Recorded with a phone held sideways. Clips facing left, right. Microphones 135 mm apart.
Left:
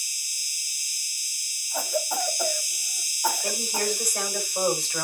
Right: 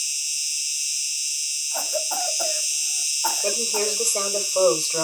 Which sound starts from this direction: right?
A woman speaking, at 3.4 s.